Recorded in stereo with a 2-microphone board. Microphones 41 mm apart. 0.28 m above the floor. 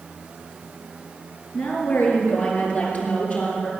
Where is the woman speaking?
55° left (ahead or behind), 4 m; by 3.7 s 40° left (ahead or behind), 4.5 m.